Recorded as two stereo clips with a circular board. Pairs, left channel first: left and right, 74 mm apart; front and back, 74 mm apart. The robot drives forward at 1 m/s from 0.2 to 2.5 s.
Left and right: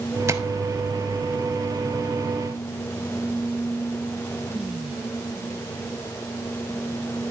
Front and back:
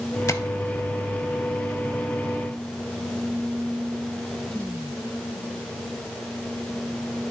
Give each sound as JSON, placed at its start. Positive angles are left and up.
{"t": 0.3, "sound": "tapping", "azimuth_deg": -45, "distance_m": 0.6}